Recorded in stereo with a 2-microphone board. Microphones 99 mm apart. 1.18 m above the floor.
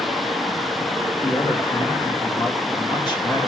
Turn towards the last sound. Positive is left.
turn(degrees=45)  # may be behind; listen again after turning